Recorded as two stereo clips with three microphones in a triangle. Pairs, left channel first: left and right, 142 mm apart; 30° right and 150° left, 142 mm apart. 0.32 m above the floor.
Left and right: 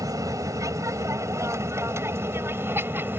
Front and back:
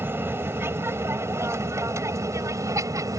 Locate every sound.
0.0 s an aircraft: 145° right; by 3.2 s 155° right